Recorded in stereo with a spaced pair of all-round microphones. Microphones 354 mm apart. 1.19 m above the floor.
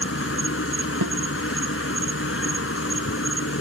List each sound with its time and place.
0.0 s an insect: 35° left (ahead or behind)
1.0 s a snare drum: 70° right (ahead or behind)